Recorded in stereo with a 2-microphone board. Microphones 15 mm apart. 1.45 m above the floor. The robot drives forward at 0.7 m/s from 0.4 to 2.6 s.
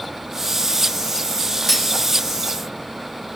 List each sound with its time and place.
1.7 s cutlery clinking: centre (ahead or behind), 1.1 m